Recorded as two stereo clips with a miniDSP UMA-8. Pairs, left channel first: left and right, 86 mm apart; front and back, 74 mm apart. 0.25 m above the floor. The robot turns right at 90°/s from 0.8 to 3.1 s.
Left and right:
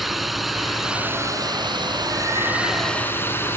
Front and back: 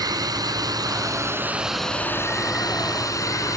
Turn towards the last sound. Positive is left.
turn(degrees=30)